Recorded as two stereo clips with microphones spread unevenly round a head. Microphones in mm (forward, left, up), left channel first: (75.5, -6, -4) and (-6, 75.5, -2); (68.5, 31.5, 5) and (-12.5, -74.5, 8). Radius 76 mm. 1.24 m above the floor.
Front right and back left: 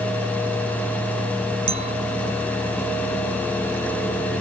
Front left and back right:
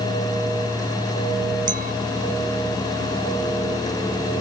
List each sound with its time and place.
1.7 s a clink: 170° right